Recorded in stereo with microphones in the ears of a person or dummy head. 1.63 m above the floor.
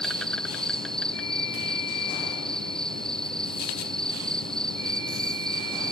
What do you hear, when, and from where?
0.0 s an insect: 5° left (ahead or behind)